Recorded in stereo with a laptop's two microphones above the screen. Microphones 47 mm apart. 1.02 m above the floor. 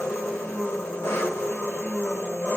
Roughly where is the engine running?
Left.